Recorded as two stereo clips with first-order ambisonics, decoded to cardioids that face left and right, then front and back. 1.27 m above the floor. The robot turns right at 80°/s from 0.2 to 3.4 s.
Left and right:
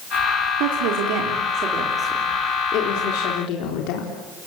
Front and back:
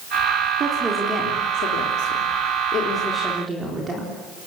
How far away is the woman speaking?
About 4 m.